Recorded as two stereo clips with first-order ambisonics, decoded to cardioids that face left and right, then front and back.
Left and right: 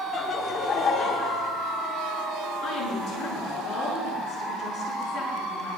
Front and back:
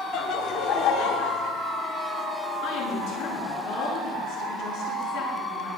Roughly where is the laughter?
Ahead left.